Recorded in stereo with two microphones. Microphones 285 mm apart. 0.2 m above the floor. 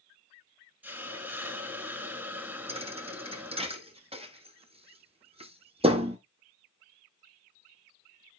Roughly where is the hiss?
Centre.